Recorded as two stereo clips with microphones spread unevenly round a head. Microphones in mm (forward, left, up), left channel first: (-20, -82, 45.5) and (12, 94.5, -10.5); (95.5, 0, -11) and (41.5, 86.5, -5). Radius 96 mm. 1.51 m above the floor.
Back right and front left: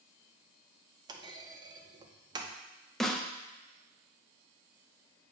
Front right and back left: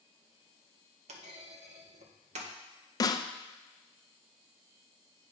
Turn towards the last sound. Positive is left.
turn(degrees=-5)